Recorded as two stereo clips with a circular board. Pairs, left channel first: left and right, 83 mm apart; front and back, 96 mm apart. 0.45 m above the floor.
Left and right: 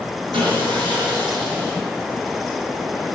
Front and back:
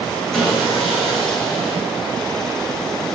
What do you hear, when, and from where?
0.3 s sawing: 90° right, 5.5 m